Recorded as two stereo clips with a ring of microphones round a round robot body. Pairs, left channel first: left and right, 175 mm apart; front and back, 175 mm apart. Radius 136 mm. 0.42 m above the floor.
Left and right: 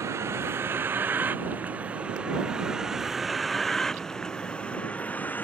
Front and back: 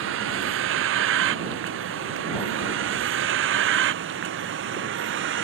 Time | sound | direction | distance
0.0 | a vehicle | 170° right | ?